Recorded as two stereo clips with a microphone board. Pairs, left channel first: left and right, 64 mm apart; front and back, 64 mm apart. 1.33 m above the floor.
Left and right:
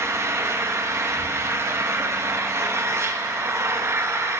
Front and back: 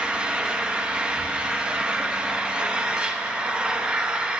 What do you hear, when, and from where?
0.0 s an engine running: 110° right, 0.8 m